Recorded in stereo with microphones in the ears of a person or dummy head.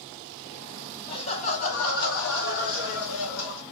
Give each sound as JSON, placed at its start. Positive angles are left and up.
{"t": 1.1, "sound": "laughter", "side_deg": 30, "distance_m": 1.0}